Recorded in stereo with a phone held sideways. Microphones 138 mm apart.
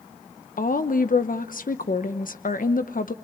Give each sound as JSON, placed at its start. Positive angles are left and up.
{"t": 0.6, "sound": "a woman speaking", "side_deg": 70, "distance_m": 1.0}